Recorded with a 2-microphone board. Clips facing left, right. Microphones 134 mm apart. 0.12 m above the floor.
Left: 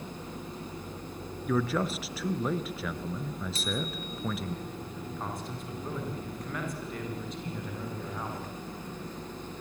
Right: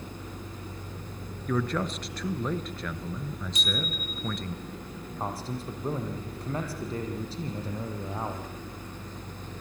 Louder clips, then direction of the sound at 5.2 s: Right 6 dB; 30° right (ahead or behind).